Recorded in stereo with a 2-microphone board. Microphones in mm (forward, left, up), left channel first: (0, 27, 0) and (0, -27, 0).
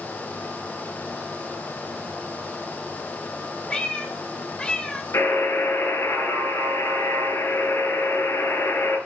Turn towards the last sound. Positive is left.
turn(degrees=65)  # may be behind; listen again after turning